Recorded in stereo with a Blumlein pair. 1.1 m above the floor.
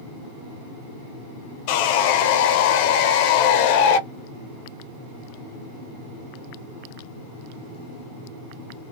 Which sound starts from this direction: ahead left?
Sawing, at 1.7 s.